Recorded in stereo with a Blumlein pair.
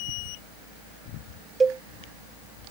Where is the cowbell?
15° right.